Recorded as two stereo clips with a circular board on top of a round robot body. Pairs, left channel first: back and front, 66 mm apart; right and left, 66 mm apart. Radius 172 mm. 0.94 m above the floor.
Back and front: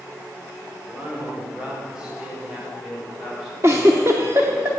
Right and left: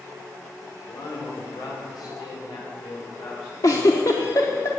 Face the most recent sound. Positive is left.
turn(degrees=-50)